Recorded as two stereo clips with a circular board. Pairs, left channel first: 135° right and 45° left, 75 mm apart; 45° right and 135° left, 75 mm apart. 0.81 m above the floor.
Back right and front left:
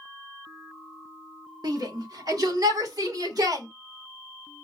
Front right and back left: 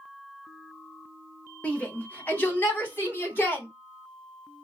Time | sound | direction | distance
1.6 | a shout | 25° left | 1.7 m